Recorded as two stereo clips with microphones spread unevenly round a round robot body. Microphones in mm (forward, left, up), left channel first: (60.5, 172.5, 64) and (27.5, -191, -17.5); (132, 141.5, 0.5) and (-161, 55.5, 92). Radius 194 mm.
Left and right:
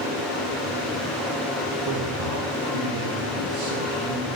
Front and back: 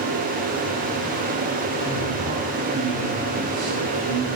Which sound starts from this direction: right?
A man speaking, at 1.9 s.